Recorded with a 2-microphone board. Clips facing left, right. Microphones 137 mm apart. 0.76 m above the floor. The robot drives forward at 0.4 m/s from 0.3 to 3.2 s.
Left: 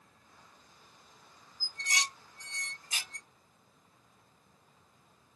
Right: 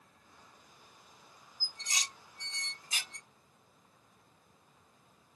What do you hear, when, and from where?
1.6 s dishes clattering: 65° left (ahead or behind), 1.1 m; by 3.3 s 40° left (ahead or behind), 1.4 m